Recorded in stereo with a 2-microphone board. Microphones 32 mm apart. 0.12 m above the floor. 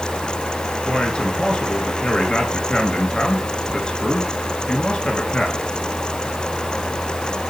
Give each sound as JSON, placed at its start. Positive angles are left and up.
{"t": 0.8, "sound": "a man speaking", "side_deg": 30, "distance_m": 1.7}